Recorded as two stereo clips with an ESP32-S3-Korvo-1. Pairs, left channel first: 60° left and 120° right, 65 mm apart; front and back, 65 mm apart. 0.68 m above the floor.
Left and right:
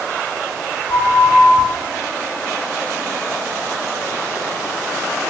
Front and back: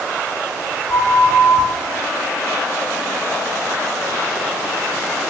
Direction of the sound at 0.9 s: 35° left.